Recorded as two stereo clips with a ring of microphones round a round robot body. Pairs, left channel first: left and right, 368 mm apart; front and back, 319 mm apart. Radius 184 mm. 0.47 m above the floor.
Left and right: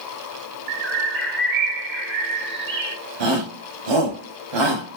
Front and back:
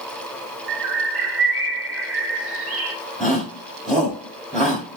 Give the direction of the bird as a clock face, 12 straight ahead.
5 o'clock.